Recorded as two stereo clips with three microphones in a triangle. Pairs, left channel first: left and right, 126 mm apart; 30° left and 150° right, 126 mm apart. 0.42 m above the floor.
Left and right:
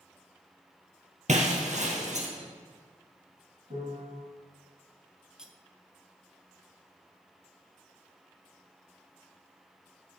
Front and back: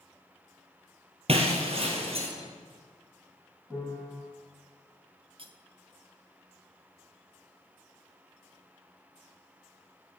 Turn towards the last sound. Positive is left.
turn(degrees=-170)